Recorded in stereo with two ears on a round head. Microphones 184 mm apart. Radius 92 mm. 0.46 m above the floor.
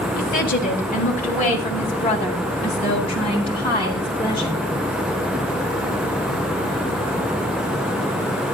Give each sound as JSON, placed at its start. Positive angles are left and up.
{"t": 0.1, "sound": "a woman speaking", "side_deg": 50, "distance_m": 4.0}